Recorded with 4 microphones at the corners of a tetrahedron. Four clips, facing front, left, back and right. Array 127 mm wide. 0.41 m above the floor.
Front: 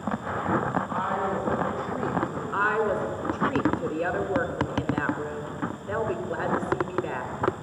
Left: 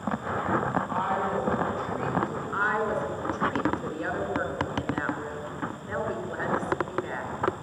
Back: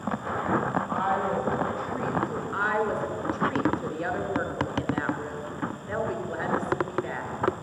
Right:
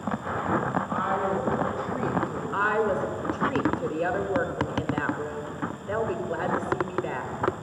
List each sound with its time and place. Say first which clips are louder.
0.9 s a woman speaking: right 1 dB, back 1 dB; 150° left, 3.5 m; by 2.4 s straight behind, 2 m
2.5 s a woman speaking: right 3 dB, front 3 dB; 45° right, 1.5 m